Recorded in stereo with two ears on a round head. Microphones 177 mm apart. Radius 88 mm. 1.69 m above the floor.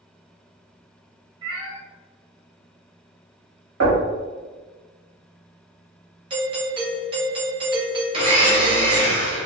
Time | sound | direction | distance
1.4 | a cat meowing | 20° right (ahead or behind) | 1.8 m
3.8 | knocking | 70° right (ahead or behind) | 1.4 m
6.3 | a doorbell | 25° right (ahead or behind) | 0.7 m
8.1 | a blender | 30° right (ahead or behind) | 0.9 m